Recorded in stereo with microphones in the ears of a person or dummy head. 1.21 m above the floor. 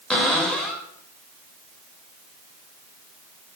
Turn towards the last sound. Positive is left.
turn(degrees=10)  # may be behind; listen again after turning